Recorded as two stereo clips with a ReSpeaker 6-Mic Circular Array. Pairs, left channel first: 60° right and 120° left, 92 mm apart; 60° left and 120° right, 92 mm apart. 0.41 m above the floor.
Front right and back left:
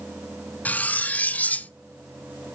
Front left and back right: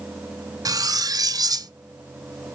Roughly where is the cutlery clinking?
Behind right.